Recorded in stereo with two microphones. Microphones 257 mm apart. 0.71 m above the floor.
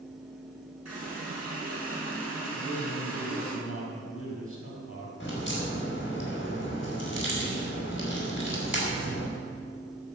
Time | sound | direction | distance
0.8 | a running tap | 90° right | 5.5 m
2.5 | a man speaking | 55° left (ahead or behind) | 4.5 m
5.2 | a crack | 50° left (ahead or behind) | 4.5 m